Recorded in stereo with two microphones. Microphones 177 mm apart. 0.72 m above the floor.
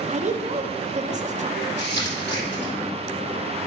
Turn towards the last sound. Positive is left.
turn(degrees=80)